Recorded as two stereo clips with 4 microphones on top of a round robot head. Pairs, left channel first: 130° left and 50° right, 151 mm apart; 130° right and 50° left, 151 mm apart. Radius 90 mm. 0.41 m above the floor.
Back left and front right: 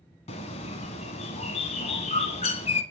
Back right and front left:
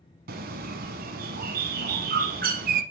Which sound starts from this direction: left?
A bird, at 0.3 s.